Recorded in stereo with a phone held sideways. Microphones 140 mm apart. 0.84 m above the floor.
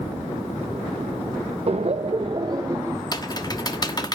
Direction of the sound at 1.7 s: 50° right (ahead or behind).